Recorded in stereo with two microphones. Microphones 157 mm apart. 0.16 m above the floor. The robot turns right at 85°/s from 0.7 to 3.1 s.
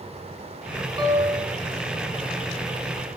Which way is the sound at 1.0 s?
25° right (ahead or behind).